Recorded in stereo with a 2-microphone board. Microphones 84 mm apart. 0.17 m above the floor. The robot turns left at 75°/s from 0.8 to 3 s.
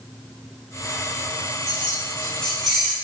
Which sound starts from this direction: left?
Keys jangling, at 1.7 s.